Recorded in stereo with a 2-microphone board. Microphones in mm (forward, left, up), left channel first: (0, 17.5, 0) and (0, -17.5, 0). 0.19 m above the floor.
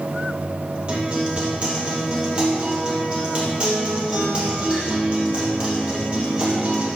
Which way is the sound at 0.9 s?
30° right (ahead or behind).